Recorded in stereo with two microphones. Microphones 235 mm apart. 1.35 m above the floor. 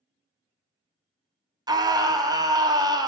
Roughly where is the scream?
Centre.